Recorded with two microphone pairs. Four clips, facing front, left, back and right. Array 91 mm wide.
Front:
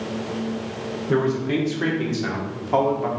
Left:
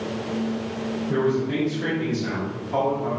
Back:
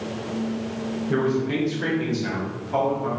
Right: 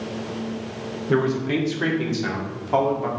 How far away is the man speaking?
About 2.5 m.